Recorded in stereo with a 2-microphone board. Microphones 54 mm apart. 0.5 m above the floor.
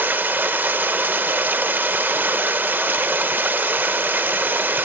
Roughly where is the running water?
Right.